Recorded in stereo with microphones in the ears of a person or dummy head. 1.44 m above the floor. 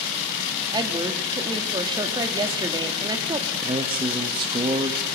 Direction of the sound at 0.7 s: 20° right (ahead or behind).